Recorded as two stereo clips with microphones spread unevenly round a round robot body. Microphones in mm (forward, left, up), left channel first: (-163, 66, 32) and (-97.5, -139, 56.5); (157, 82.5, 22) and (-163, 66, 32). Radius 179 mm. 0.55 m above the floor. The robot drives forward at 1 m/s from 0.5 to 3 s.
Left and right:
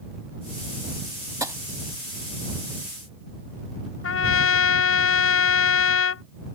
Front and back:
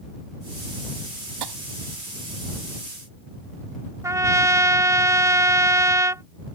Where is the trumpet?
105° left.